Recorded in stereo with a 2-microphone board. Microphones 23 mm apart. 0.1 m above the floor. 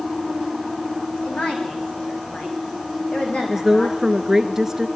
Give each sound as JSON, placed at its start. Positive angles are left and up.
{"t": 1.2, "sound": "a woman speaking", "side_deg": 65, "distance_m": 7.5}
{"t": 3.5, "sound": "a woman speaking", "side_deg": -20, "distance_m": 1.1}